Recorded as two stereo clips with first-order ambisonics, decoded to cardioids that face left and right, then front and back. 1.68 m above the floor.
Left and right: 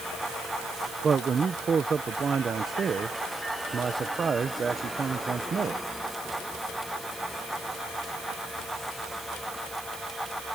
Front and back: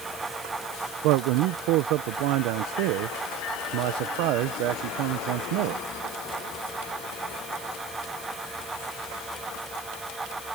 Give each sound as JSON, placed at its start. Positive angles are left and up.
{"t": 1.0, "sound": "a man speaking", "azimuth_deg": -160}